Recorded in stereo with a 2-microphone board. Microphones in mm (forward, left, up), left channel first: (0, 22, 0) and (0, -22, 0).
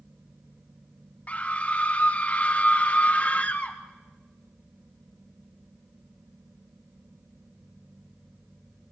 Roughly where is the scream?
Left.